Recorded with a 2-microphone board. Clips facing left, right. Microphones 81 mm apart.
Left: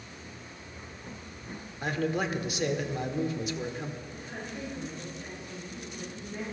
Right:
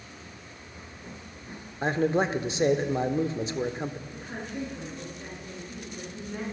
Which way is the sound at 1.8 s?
30° right (ahead or behind).